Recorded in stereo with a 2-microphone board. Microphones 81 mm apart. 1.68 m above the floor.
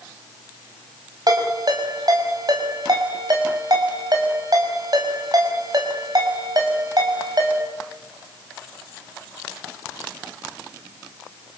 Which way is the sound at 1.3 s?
55° right (ahead or behind).